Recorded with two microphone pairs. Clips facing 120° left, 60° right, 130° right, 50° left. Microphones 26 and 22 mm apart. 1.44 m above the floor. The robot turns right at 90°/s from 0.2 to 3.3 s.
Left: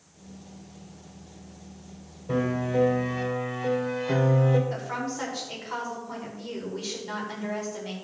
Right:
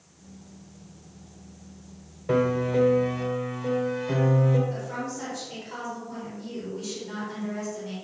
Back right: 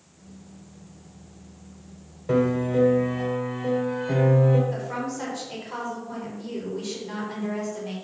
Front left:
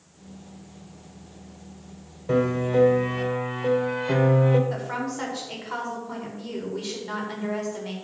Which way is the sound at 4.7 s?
60° left.